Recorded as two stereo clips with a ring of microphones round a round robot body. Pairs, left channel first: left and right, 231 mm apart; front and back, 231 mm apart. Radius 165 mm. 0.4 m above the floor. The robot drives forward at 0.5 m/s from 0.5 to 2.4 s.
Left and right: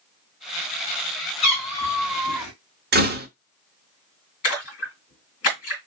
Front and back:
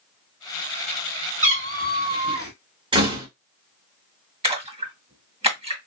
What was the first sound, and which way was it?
A cat meowing, 120° left.